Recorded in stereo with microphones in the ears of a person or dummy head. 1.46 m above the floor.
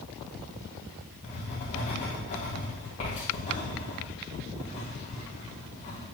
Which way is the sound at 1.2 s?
30° left (ahead or behind).